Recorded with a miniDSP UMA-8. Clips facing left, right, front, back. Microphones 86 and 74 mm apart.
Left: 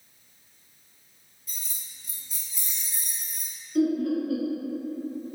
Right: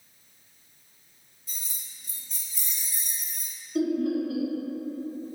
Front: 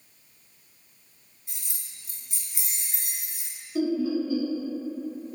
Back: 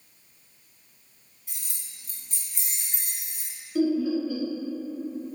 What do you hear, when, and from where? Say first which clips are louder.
1.5 s keys jangling: even, even; 60° right, 1.0 m; by 3.5 s 85° left, 1.4 m
3.8 s laughter: left 2 dB, back 1 dB; 40° right, 1.2 m